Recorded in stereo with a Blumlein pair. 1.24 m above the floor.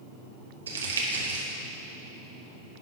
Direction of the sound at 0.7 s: 70° right.